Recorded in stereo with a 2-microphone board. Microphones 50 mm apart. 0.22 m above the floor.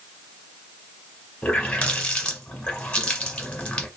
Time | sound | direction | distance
1.4 | a running tap | 20° left (ahead or behind) | 0.9 m